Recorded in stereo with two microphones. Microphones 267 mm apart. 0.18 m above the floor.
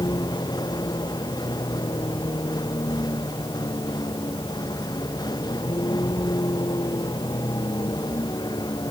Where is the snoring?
I don't hear snoring.